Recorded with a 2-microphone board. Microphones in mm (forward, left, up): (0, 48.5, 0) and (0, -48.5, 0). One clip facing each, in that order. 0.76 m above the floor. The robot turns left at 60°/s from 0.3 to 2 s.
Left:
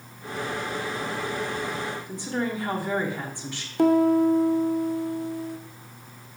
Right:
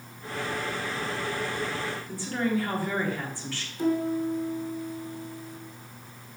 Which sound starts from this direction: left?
A piano, at 3.8 s.